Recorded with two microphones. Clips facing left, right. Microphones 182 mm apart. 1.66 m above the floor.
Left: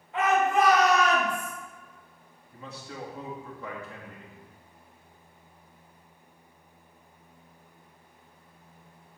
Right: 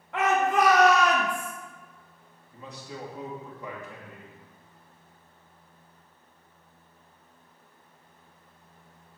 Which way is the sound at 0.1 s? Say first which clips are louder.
Even; 75° right (ahead or behind).